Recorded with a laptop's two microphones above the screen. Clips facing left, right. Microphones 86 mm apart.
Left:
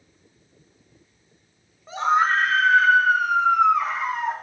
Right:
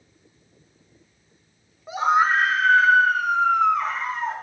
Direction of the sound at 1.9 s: 10° right (ahead or behind).